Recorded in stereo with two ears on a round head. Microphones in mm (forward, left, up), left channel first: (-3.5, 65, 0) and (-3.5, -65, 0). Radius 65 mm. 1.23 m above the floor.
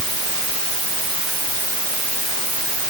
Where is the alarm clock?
I don't hear an alarm clock.